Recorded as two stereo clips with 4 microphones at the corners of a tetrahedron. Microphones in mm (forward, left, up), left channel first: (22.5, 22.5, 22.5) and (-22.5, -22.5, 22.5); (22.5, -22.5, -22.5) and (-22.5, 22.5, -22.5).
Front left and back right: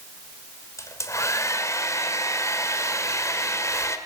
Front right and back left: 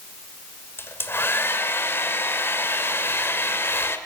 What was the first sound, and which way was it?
A hair dryer, 5° left.